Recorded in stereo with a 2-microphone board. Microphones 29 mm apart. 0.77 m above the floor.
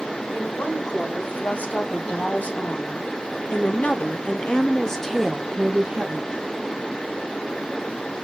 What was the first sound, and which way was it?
A woman speaking, 75° left (ahead or behind).